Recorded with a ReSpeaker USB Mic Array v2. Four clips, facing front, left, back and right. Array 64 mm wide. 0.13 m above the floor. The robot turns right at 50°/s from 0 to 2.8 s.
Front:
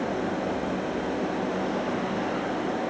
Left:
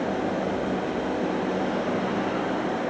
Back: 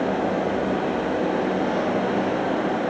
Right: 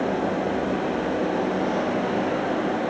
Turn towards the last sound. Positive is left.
No sound to turn to.